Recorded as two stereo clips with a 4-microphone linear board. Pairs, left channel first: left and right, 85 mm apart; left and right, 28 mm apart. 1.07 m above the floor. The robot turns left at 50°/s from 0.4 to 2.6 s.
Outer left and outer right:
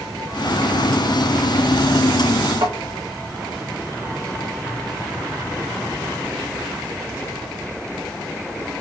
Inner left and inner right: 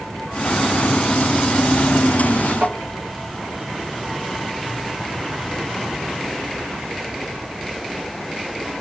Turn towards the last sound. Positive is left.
turn(degrees=-75)  # may be behind; listen again after turning